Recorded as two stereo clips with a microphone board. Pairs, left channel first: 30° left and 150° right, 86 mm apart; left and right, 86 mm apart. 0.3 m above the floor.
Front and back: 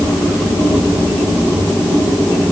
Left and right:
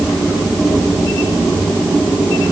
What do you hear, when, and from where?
Only background noise.